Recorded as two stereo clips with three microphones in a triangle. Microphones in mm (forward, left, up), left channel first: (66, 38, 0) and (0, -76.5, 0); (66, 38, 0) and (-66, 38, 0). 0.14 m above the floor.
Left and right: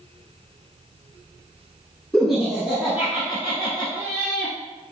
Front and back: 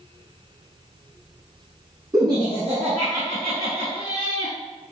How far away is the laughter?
About 1.3 m.